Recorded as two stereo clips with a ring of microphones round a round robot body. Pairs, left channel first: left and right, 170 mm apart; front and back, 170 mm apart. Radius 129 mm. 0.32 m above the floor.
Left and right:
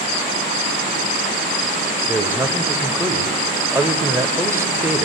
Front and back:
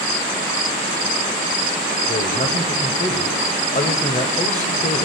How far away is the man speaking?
About 1.2 m.